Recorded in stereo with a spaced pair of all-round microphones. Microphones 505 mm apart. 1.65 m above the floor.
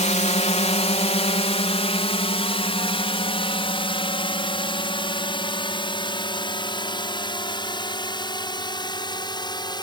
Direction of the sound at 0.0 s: 10° left (ahead or behind).